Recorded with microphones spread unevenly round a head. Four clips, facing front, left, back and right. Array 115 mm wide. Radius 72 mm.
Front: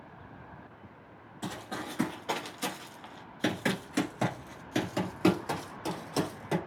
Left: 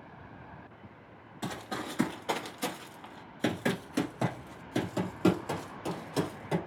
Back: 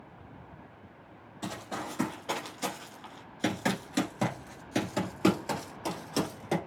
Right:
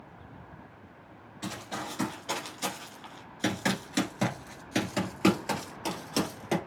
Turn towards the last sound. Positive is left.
turn(degrees=-60)